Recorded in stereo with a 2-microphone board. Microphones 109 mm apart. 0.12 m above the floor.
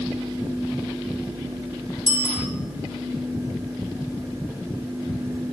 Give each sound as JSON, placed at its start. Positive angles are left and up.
{"t": 2.1, "sound": "a bicycle bell", "side_deg": 45, "distance_m": 3.0}